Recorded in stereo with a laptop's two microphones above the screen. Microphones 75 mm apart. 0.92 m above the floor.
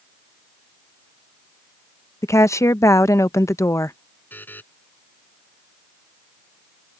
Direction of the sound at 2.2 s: 40° left (ahead or behind).